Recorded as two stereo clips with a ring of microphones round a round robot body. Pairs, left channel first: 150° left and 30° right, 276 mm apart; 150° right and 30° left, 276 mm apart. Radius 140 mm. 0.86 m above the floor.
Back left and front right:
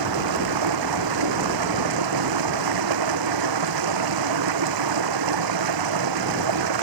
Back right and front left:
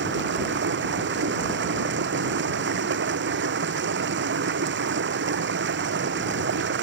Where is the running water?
20° right.